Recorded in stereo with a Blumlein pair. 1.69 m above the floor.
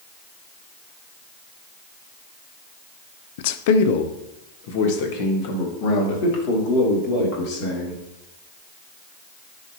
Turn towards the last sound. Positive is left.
turn(degrees=45)